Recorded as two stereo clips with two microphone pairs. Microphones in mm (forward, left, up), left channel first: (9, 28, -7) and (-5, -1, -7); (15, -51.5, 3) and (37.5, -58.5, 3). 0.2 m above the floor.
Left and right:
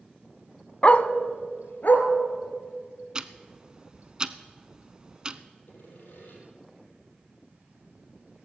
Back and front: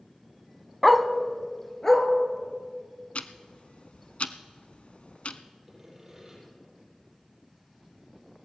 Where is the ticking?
175° left, 0.6 m.